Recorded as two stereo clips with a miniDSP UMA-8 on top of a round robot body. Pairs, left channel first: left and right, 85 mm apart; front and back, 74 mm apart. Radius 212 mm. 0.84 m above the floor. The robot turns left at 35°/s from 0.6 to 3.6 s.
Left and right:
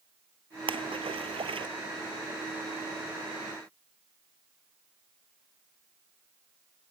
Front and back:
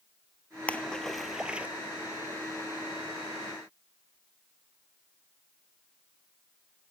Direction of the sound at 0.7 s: 75° right.